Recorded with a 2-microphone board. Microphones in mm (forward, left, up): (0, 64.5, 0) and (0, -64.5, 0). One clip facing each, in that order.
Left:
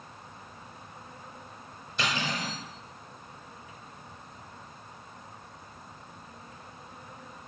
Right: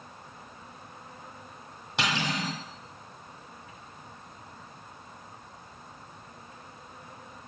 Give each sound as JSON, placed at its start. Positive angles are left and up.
{"t": 2.0, "sound": "cutlery clinking", "side_deg": -70, "distance_m": 2.5}